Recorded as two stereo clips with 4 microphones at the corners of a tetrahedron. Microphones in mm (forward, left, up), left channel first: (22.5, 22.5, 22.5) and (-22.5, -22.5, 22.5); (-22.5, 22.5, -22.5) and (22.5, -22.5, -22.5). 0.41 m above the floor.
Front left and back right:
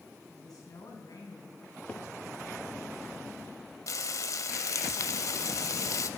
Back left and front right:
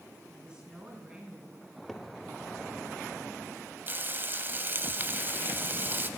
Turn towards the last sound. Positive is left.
turn(degrees=15)